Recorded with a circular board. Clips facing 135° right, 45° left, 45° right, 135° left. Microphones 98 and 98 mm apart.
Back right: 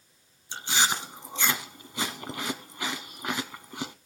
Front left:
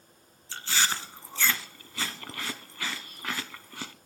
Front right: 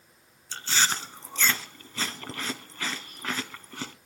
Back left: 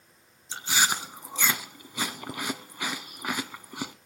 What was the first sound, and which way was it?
Chewing, 170° right.